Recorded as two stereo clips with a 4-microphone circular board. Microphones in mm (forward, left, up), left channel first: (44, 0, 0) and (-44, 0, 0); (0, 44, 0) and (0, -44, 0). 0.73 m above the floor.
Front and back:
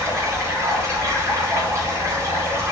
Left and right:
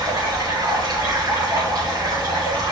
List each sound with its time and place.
0.0 s running water: 130° right, 4 m